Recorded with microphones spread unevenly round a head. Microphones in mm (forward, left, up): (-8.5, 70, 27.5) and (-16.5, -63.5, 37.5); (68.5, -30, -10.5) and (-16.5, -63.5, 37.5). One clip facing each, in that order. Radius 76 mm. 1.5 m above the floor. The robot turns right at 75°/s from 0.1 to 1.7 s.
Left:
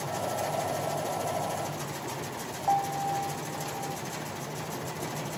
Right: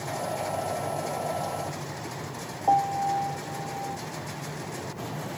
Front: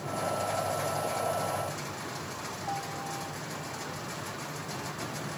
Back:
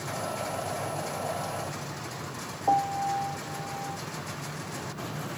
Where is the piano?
150° right.